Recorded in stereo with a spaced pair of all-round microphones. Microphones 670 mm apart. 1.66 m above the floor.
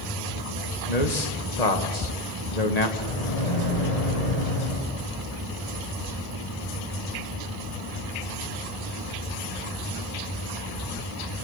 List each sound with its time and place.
0.9 s a man speaking: 70° left (ahead or behind), 2 m
3.0 s a microwave: 70° left (ahead or behind), 7.5 m